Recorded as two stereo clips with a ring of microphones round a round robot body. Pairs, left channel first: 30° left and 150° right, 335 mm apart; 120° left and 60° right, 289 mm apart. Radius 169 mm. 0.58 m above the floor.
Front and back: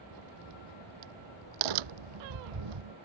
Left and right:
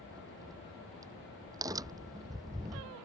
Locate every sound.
0.1 s a crack: 140° right